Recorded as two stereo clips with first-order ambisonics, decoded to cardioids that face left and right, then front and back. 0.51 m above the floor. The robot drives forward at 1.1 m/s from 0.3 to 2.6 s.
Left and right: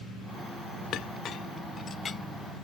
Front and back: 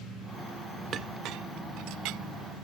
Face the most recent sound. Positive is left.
turn(degrees=165)